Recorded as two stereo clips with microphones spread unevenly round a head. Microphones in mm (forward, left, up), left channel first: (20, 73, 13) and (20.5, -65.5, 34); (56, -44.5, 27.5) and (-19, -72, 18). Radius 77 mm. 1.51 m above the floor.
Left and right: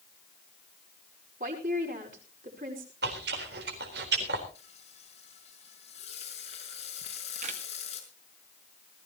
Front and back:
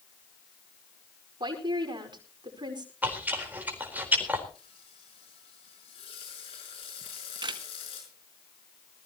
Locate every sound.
1.4 s a woman speaking: 130° right, 5 m
3.0 s chewing: 90° right, 4 m
4.5 s frying: 45° left, 5.5 m
7.0 s a camera shutter: 135° right, 1.7 m